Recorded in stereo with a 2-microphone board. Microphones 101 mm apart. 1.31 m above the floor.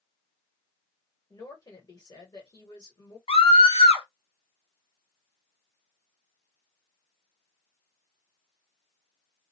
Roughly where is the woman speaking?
Left.